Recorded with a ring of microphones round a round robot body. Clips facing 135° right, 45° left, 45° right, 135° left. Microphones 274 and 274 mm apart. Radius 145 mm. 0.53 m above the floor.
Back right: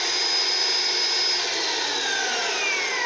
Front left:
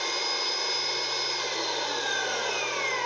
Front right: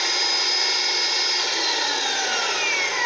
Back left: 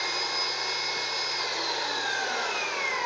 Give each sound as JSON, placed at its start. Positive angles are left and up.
{"t": 0.0, "sound": "an engine running", "azimuth_deg": -85, "distance_m": 1.0}